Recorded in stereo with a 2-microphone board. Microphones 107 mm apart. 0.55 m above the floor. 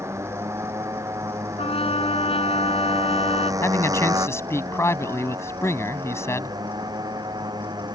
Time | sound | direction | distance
0.0 | a motorcycle | 25° right (ahead or behind) | ?
1.6 | a trumpet | 60° left (ahead or behind) | ?
3.6 | a man speaking | 25° left (ahead or behind) | ?